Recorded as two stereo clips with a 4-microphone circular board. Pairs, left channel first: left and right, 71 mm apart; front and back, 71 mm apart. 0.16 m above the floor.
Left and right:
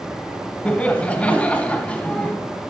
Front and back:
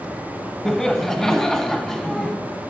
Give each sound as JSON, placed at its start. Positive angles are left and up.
{"t": 0.7, "sound": "laughter", "azimuth_deg": 70, "distance_m": 1.1}